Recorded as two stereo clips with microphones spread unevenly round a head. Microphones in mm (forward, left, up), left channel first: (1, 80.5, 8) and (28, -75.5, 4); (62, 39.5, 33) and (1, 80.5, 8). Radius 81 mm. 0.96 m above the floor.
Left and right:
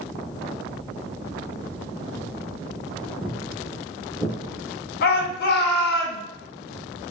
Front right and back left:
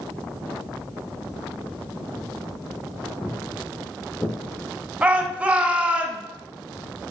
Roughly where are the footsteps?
Ahead.